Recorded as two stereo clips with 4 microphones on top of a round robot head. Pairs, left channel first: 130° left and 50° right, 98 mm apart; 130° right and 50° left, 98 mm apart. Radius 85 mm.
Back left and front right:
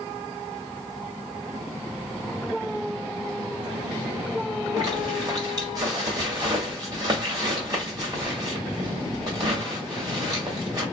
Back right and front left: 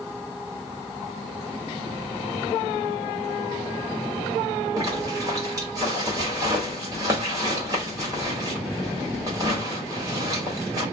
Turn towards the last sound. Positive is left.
turn(degrees=0)